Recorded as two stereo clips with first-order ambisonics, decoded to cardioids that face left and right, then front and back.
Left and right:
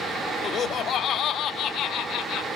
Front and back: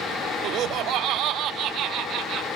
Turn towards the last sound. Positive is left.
turn(degrees=135)